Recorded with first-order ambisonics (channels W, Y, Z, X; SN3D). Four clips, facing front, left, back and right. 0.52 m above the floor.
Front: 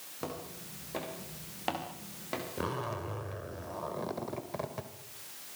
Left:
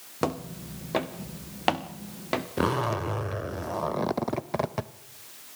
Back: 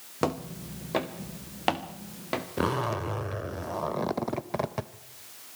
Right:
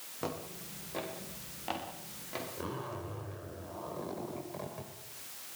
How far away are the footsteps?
About 2.5 m.